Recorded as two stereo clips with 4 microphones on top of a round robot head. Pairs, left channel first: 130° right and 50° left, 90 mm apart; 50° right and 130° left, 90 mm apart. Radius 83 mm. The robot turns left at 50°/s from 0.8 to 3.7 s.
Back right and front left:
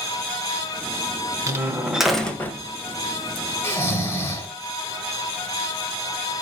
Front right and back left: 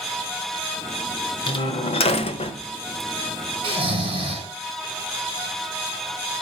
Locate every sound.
1.5 s a door slam: 10° right, 1.5 m; by 2.6 s 70° right, 1.5 m
3.6 s snoring: 165° left, 3.5 m